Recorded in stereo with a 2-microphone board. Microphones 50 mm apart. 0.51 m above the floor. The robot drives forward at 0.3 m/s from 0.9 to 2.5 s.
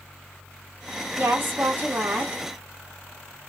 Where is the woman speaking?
45° right (ahead or behind), 0.9 m.